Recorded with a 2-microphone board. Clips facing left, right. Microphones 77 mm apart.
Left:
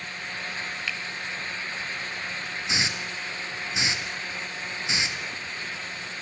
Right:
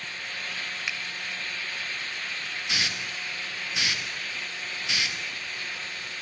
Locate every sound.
0.9 s a finger snap: 20° right (ahead or behind), 1.9 m
2.7 s a hiss: 20° left (ahead or behind), 2 m